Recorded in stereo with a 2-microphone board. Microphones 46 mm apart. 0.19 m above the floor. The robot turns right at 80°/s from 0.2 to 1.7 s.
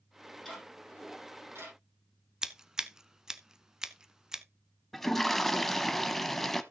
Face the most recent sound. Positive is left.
turn(degrees=5)  # may be behind; listen again after turning